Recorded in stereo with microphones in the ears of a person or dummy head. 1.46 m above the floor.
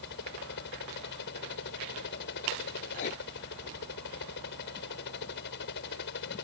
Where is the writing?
40° left (ahead or behind).